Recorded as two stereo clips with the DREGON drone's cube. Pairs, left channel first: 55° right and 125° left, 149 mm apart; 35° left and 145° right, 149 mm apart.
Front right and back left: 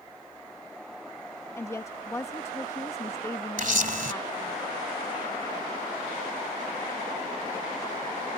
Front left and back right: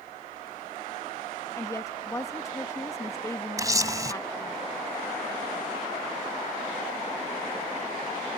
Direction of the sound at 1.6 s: 10° right.